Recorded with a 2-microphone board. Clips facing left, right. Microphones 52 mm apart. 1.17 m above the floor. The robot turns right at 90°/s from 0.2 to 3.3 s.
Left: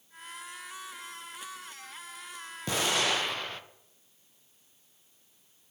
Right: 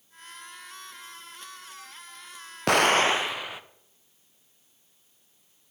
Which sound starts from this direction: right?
An explosion, at 2.7 s.